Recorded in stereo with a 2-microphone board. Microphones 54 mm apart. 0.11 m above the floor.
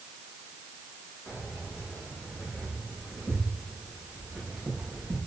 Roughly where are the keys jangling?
Left.